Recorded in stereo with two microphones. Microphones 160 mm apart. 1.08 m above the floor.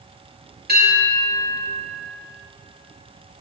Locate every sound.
0.7 s a bell: 70° right (ahead or behind), 3 m